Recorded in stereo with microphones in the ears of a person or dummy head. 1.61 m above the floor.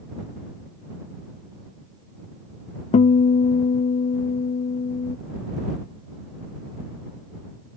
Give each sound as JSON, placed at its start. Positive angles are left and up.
{"t": 2.9, "sound": "a guitar", "side_deg": 40}